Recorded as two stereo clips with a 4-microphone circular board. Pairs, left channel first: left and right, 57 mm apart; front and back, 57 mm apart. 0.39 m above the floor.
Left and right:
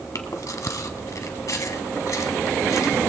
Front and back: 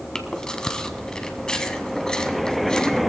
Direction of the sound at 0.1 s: 75° left.